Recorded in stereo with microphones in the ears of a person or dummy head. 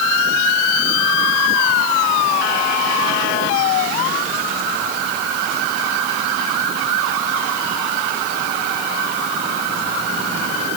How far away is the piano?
I don't hear a piano.